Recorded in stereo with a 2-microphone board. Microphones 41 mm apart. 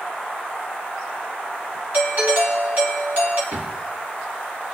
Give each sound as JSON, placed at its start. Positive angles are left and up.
{"t": 1.9, "sound": "a doorbell", "side_deg": -55, "distance_m": 2.5}
{"t": 3.5, "sound": "a drawer", "side_deg": -75, "distance_m": 4.0}